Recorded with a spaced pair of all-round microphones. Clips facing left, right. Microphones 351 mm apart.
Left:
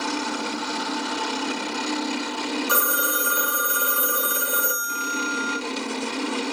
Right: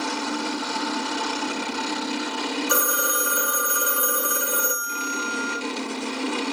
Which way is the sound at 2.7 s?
10° left (ahead or behind).